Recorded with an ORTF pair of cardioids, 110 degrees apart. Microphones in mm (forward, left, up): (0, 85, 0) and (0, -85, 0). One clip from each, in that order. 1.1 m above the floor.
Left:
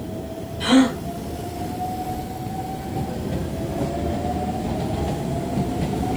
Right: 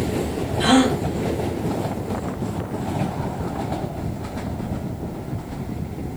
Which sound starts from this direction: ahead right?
A gasp, at 0.6 s.